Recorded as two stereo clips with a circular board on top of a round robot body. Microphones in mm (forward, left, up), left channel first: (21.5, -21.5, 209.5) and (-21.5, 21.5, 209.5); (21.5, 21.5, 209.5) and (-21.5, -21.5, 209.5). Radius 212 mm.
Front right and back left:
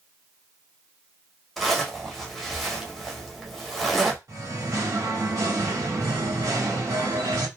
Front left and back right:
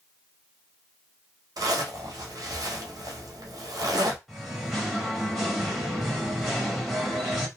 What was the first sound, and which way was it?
A zipper, 135° right.